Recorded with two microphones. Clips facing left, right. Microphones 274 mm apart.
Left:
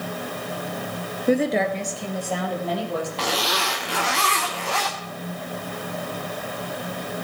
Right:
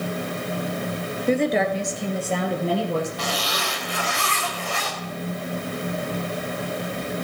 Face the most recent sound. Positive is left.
turn(degrees=80)